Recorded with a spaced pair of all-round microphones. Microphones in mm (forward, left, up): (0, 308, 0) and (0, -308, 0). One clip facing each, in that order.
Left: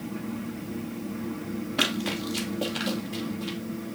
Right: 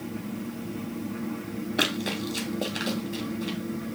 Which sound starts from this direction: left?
Running footsteps, at 1.8 s.